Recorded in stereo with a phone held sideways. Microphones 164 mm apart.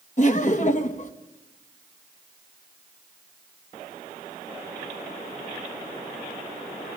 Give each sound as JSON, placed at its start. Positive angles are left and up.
{"t": 0.2, "sound": "laughter", "side_deg": 50, "distance_m": 1.5}